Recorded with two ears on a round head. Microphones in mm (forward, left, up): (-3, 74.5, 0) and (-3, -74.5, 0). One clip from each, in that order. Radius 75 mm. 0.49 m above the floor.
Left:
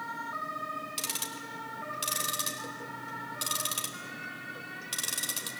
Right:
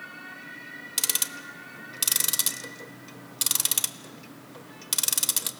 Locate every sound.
1.0 s ticking: 40° right (ahead or behind), 0.9 m